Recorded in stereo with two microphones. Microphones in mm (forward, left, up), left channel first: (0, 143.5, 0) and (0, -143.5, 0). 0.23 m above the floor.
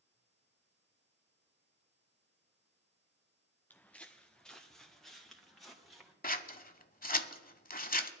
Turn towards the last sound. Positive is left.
turn(degrees=30)  # may be behind; listen again after turning